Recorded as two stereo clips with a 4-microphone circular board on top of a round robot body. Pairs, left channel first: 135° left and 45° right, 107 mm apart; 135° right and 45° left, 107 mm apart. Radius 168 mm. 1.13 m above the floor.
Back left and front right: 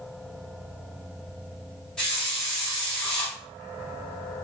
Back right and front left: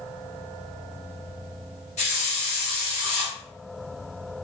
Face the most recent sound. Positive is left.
turn(degrees=-140)